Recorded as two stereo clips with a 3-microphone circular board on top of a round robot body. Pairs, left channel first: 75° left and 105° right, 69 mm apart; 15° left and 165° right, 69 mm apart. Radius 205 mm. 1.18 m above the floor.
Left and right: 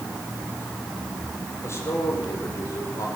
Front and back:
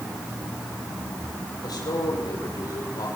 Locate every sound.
1.6 s a man speaking: 30° left, 6 m; by 3.1 s 35° left, 6.5 m